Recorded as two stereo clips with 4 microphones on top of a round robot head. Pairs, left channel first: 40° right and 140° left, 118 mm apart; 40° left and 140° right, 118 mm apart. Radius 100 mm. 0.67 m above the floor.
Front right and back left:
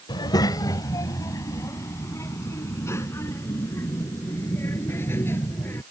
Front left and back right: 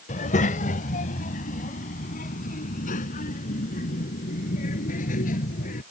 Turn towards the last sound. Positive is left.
turn(degrees=35)